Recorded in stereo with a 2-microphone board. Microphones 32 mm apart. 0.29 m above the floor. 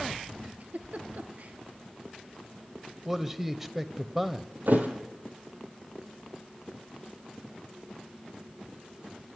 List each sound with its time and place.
0.6 s a giggle: 50° right (ahead or behind), 1.5 m
3.0 s a man speaking: 10° right (ahead or behind), 1.1 m
4.7 s a thud: 60° right (ahead or behind), 2.5 m